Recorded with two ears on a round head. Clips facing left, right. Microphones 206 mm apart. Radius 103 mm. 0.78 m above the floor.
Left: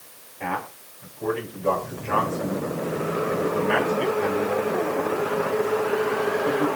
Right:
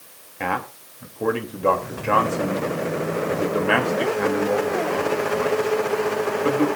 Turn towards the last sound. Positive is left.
turn(degrees=-80)